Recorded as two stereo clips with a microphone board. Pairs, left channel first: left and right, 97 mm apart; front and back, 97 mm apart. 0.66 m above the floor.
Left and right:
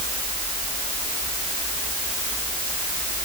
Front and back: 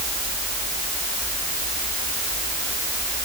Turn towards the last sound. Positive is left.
No sound to turn to.